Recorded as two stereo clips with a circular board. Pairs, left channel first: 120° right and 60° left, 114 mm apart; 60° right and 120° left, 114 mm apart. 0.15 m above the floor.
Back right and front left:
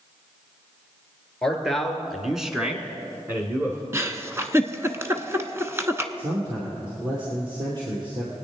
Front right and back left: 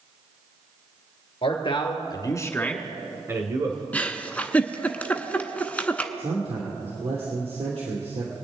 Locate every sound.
1.4 s a man speaking: 35° right, 2.5 m; by 3.8 s 125° left, 1.9 m
3.9 s a giggle: 10° left, 0.8 m
6.2 s a man speaking: 100° left, 2.5 m